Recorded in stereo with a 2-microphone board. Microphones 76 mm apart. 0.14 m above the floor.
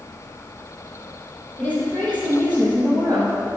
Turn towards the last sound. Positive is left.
turn(degrees=20)  # may be behind; listen again after turning